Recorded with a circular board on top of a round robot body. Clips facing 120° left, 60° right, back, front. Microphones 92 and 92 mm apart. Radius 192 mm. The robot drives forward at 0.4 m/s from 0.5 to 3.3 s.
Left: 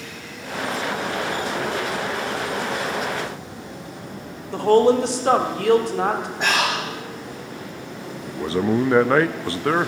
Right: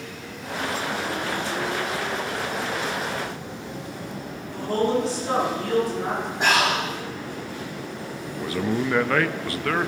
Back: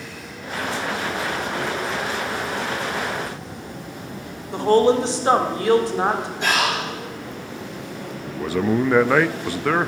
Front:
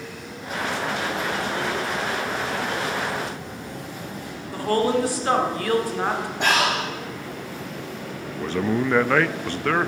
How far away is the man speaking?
About 0.7 m.